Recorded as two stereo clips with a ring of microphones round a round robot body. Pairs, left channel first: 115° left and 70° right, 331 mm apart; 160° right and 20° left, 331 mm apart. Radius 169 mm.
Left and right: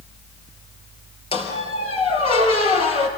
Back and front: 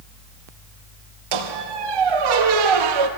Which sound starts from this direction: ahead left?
A squeak, at 1.3 s.